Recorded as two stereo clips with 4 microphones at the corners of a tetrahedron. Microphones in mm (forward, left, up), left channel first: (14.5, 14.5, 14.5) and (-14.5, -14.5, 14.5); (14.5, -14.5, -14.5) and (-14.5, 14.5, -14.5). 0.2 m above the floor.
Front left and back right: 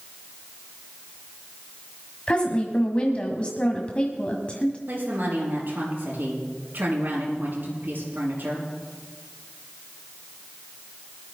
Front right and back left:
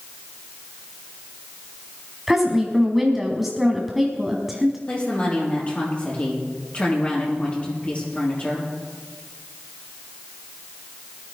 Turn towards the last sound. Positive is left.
turn(degrees=-105)